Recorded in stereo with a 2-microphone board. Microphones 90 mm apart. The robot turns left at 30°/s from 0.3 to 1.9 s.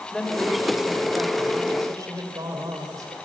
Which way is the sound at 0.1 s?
5° left.